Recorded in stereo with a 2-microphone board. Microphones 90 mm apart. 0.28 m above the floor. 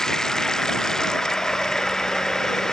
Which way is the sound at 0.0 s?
5° left (ahead or behind).